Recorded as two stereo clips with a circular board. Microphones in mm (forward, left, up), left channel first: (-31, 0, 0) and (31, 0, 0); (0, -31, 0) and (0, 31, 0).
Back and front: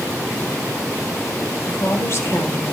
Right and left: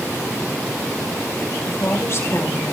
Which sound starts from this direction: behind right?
A woman speaking, at 1.6 s.